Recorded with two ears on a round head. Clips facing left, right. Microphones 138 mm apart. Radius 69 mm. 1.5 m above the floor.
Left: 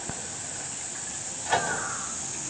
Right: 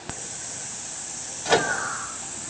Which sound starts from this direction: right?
A microwave, at 1.4 s.